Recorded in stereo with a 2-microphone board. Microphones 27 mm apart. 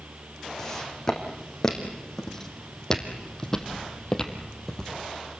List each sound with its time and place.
0.6 s footsteps: 20° left (ahead or behind), 4.5 m